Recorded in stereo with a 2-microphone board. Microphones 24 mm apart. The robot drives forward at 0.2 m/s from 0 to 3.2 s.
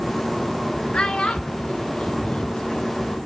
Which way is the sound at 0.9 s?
45° left (ahead or behind).